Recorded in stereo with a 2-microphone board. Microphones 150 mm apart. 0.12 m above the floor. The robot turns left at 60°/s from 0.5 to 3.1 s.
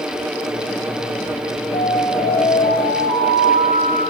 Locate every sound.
1.7 s an alarm: 125° left, 8.5 m; by 4.0 s 45° left, 8.5 m